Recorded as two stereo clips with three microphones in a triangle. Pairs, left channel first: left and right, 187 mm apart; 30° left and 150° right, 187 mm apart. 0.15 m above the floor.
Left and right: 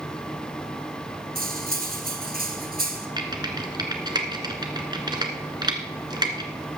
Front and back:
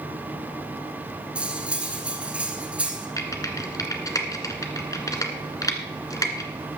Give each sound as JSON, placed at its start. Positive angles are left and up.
{"t": 1.4, "sound": "cutlery clinking", "azimuth_deg": -65, "distance_m": 1.5}
{"t": 3.2, "sound": "typing on a keyboard", "azimuth_deg": -35, "distance_m": 1.4}